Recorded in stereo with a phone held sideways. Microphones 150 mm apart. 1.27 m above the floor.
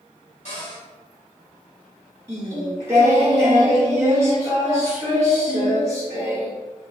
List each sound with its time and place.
0.5 s a cupboard door: 55° left (ahead or behind), 1.4 m
2.3 s singing: 20° right (ahead or behind), 1.3 m